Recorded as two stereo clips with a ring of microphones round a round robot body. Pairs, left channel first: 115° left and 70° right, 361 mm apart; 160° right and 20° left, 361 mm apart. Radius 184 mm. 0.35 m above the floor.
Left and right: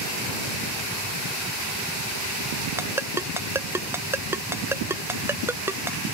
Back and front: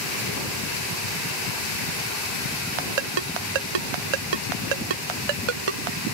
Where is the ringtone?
15° left.